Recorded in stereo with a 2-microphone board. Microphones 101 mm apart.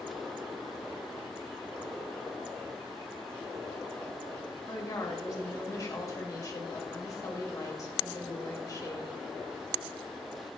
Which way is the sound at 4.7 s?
35° left (ahead or behind).